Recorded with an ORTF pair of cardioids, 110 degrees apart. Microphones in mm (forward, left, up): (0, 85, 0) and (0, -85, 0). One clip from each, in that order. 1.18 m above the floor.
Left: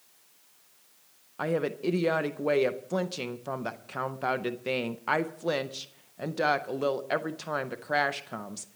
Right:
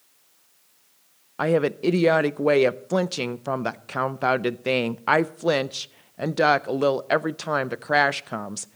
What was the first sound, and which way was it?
A woman speaking, 30° right.